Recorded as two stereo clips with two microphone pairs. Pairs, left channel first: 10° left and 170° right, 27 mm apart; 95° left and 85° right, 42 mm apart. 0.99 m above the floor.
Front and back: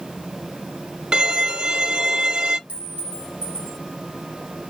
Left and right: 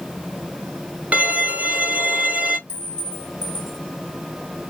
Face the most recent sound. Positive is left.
turn(degrees=-140)